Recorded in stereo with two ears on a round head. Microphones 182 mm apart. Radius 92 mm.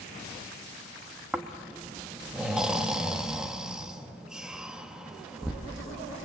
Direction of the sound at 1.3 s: 5° right (ahead or behind).